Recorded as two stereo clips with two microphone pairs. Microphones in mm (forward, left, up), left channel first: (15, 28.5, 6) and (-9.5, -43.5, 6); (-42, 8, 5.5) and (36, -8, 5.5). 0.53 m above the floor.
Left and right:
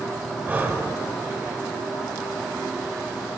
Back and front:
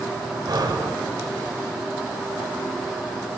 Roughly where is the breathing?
Ahead right.